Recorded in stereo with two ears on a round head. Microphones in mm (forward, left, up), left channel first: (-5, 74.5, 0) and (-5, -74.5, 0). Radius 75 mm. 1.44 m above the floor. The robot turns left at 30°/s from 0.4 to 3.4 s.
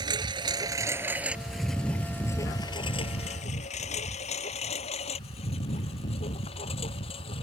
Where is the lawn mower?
30° right (ahead or behind); by 7.4 s 40° left (ahead or behind).